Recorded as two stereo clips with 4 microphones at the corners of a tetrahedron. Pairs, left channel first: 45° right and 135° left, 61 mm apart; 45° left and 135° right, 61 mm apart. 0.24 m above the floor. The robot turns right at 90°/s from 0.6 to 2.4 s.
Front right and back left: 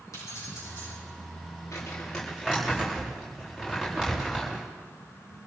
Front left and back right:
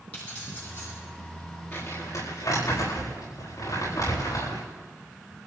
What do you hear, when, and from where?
0.1 s keys jangling: 20° right, 8 m; by 0.9 s 10° left, 8 m
1.7 s crumpling: 5° right, 8 m; by 4.6 s 55° left, 8 m